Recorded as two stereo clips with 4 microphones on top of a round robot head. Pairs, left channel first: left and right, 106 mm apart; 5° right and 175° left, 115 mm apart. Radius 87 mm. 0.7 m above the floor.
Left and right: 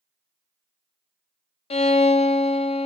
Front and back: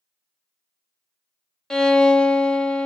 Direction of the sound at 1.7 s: 75° left.